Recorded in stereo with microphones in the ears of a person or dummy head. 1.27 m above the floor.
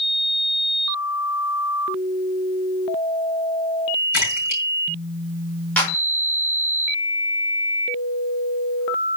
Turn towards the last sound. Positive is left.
turn(degrees=10)  # may be behind; listen again after turning